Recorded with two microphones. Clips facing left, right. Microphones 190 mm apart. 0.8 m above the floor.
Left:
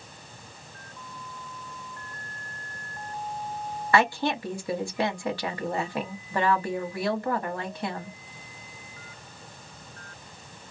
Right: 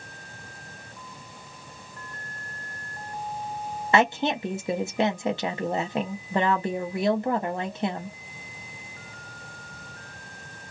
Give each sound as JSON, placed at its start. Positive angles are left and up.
{"t": 3.9, "sound": "a woman speaking", "side_deg": -20, "distance_m": 0.7}